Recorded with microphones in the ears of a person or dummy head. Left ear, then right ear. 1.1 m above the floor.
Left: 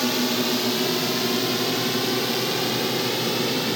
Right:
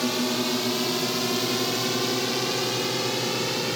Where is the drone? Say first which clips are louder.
Left 2 dB; 5° left (ahead or behind); by 3.8 s 5° right (ahead or behind).